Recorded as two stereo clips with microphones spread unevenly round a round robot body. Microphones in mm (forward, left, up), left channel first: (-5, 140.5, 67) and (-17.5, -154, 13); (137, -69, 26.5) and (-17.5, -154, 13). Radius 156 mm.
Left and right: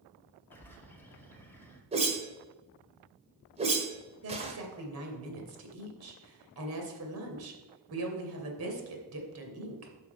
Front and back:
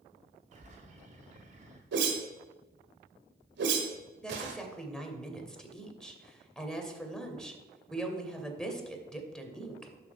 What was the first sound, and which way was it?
A bird, straight behind.